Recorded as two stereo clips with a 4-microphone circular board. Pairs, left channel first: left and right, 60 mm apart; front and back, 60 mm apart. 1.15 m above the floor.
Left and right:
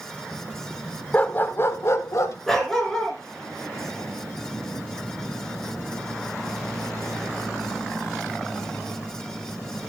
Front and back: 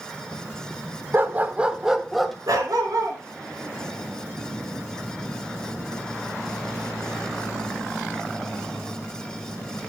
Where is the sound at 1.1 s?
145° left, 1.0 m; by 2.4 s 85° left, 1.3 m.